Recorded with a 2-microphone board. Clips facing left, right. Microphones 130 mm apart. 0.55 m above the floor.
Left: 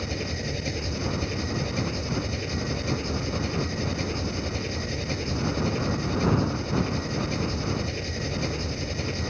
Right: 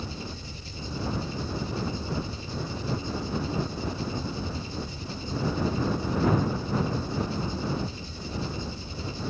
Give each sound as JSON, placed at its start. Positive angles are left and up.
{"t": 0.0, "sound": "an engine running", "side_deg": 80}